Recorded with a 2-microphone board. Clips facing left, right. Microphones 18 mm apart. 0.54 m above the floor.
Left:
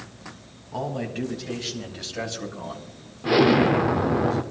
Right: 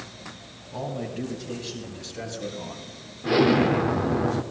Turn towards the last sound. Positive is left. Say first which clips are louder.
# left 2 dB
turn(degrees=5)  # may be behind; listen again after turning